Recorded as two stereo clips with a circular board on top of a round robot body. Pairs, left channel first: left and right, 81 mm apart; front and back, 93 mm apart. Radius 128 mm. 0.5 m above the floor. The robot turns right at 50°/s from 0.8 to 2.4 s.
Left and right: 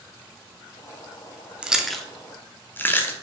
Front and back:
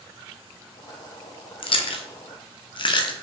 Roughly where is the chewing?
Ahead.